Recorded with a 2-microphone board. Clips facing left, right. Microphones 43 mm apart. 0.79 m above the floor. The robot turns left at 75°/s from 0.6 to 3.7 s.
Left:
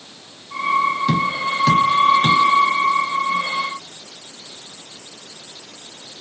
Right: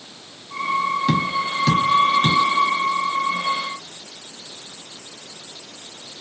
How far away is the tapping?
About 1.8 m.